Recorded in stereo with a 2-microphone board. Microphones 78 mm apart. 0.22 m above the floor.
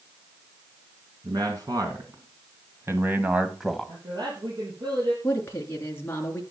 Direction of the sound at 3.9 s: 65° right (ahead or behind).